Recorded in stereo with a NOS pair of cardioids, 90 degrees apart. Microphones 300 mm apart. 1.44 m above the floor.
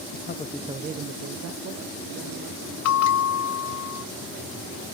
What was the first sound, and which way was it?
A man speaking, 45° left.